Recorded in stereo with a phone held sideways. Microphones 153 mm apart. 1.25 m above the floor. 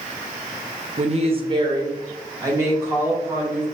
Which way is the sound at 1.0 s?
50° right (ahead or behind).